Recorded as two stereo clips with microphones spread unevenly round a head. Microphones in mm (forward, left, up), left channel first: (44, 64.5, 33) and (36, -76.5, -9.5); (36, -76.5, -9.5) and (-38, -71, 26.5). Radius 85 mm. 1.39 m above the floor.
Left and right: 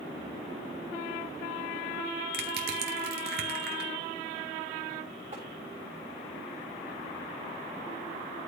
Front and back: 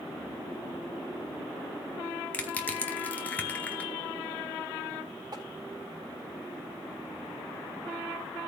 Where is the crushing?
85° right, 2 m.